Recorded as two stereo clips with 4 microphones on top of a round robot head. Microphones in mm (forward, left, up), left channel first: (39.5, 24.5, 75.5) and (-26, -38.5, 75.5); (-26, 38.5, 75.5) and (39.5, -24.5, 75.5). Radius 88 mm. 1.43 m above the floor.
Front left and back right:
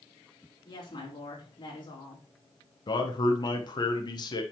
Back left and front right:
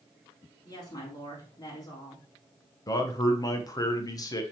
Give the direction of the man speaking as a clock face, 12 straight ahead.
9 o'clock.